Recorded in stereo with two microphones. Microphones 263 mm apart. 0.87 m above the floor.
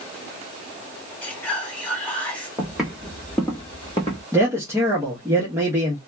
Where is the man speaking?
10° right (ahead or behind), 1.0 m.